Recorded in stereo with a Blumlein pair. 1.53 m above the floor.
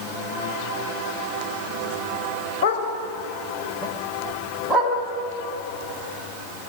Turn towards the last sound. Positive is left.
turn(degrees=0)